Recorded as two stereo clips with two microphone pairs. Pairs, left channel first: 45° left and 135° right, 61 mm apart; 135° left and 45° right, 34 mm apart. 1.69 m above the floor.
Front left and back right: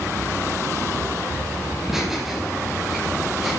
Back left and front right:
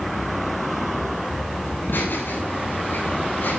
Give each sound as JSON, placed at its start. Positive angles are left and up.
{"t": 1.7, "sound": "laughter", "azimuth_deg": 140, "distance_m": 8.0}